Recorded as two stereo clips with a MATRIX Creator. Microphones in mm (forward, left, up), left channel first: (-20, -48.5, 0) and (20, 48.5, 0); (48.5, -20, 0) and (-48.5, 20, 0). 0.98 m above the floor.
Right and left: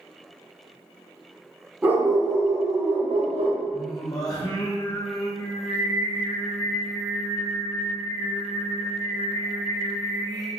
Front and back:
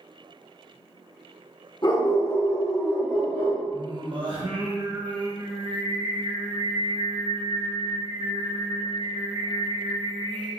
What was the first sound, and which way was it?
A dog barking, straight ahead.